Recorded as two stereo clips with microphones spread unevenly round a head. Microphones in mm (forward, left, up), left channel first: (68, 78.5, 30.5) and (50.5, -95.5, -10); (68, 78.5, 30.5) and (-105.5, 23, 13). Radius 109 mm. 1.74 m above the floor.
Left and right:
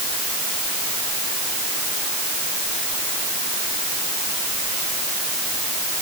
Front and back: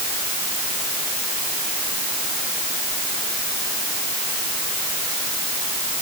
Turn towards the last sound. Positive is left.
No sound to turn to.